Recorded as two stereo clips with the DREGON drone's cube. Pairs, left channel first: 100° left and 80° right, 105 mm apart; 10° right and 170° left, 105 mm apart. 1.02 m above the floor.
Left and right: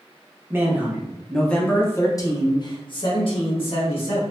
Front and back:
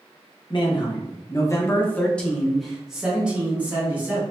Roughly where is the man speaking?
Ahead.